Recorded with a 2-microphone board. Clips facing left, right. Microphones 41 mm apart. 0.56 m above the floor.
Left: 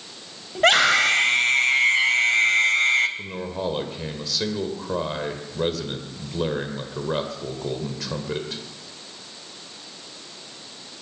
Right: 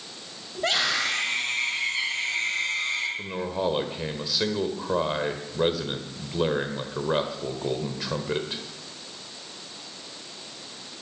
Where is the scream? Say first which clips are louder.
Left 8 dB; 65° left (ahead or behind), 2.5 m.